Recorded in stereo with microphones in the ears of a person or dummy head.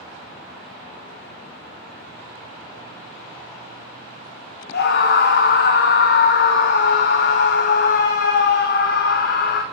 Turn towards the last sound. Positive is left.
turn(degrees=60)  # may be behind; listen again after turning